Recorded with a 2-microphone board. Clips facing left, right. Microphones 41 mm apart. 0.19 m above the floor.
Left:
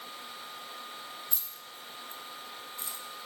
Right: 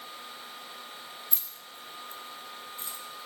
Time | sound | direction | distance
1.3 | keys jangling | 30° right (ahead or behind) | 0.8 m